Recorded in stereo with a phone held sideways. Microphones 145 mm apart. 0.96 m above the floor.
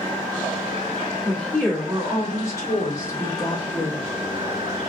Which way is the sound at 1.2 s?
5° left (ahead or behind).